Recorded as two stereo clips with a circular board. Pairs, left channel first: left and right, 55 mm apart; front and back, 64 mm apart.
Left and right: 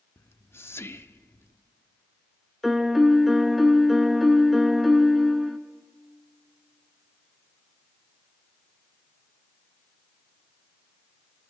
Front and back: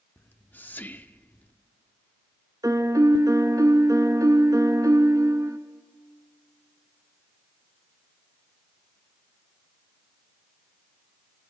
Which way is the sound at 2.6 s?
Straight behind.